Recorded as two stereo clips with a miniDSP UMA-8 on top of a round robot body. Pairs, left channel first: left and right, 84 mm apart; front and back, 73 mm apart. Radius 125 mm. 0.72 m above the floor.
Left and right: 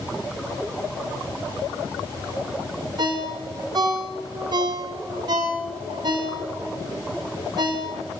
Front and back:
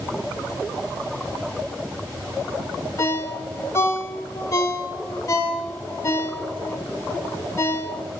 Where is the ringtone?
50° right, 2.5 m.